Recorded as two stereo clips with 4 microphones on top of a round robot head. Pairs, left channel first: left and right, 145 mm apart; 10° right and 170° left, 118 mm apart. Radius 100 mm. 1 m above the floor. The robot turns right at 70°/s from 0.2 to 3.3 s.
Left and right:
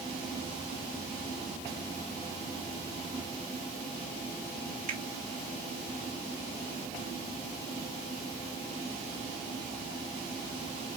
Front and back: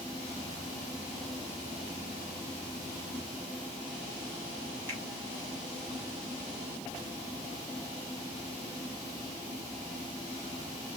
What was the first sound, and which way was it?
A finger snap, 115° right.